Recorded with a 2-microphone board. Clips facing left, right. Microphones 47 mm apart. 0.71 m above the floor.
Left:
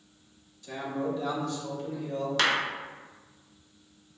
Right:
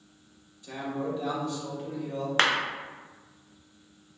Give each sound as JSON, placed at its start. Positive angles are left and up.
{"t": 0.6, "sound": "a man speaking", "side_deg": -20, "distance_m": 1.1}
{"t": 2.4, "sound": "a clap", "side_deg": -40, "distance_m": 0.5}